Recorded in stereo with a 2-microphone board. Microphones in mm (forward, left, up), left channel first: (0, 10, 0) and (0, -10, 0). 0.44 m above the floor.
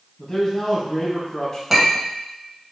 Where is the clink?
Centre (ahead or behind), 1.5 m.